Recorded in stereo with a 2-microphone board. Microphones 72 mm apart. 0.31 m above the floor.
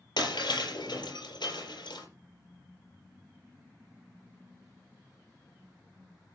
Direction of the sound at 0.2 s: 85° left.